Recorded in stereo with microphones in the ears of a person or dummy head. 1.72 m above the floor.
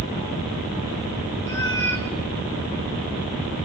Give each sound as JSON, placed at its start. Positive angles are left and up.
{"t": 1.4, "sound": "a cat meowing", "side_deg": 10, "distance_m": 1.0}